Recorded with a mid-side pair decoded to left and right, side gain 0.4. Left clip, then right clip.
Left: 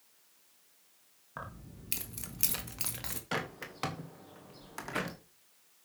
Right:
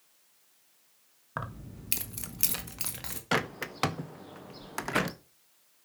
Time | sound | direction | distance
1.4 | keys jangling | 65° right | 1.5 m
3.3 | a bird | 55° right | 1.2 m